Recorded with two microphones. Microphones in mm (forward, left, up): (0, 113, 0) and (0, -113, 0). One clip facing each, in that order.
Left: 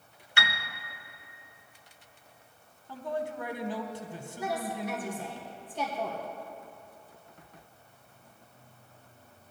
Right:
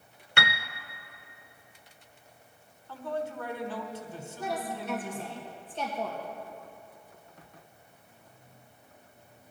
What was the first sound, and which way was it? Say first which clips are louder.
A piano: right 4 dB; 60° right (ahead or behind).